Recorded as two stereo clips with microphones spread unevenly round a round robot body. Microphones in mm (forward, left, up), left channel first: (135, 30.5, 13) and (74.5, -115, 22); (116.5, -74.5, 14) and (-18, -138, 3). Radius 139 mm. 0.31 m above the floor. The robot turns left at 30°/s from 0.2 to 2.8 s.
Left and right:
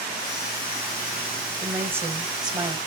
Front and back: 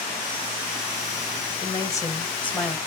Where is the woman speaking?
30° right, 1.1 m; by 2.8 s 65° right, 1.1 m.